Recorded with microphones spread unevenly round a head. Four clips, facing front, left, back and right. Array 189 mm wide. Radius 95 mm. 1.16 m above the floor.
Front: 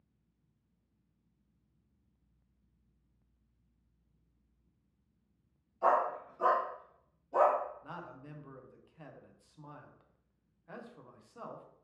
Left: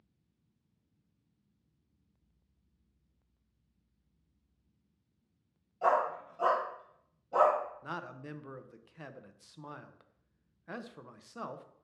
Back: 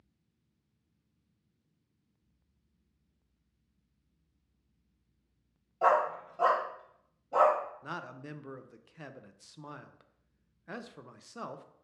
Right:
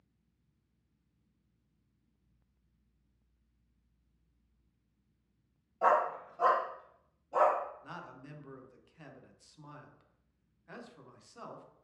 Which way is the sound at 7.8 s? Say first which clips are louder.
Left 5 dB, back 5 dB; 150° left.